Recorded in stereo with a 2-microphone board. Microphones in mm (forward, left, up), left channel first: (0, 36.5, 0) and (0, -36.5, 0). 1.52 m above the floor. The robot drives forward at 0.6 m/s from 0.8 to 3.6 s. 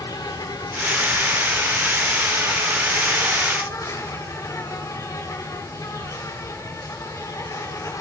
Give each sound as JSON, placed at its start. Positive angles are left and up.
{"t": 0.0, "sound": "an insect", "side_deg": 70, "distance_m": 2.5}